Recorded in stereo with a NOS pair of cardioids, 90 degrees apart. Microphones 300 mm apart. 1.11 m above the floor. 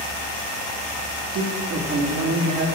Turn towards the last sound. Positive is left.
turn(degrees=-60)